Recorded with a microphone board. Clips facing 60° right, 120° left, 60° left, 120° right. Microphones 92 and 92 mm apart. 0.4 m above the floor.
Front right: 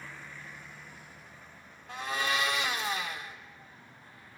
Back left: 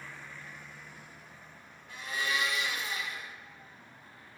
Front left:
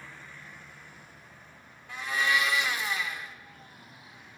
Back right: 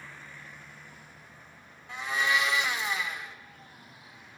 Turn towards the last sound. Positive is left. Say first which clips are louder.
# front right 3 dB, even
turn(degrees=-50)